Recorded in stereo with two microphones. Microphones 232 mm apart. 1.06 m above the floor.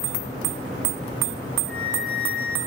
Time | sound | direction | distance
1.7 | a flute | 65° left (ahead or behind) | 1.2 m